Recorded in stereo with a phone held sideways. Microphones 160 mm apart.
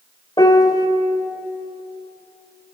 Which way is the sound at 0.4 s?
25° left (ahead or behind).